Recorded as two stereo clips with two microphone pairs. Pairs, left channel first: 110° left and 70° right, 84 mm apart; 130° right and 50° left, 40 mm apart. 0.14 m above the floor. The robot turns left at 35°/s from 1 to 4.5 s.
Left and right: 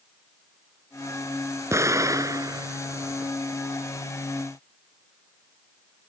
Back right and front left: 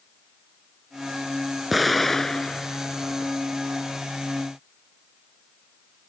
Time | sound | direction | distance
1.7 | an explosion | 35° right | ?